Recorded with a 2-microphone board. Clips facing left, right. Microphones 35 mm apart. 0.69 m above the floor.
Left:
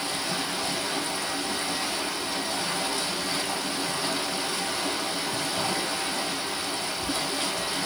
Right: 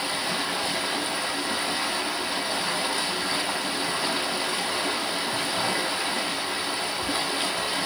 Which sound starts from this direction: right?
Running water, at 0.0 s.